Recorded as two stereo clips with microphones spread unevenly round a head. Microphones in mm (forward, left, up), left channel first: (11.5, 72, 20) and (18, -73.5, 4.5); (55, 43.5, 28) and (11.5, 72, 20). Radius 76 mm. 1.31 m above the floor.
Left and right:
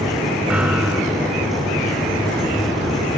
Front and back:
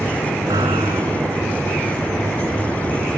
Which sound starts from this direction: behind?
A piano, at 0.5 s.